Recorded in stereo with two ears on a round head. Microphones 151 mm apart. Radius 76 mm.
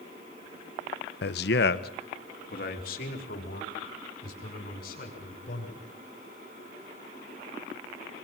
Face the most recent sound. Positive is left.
turn(degrees=50)  # may be behind; listen again after turning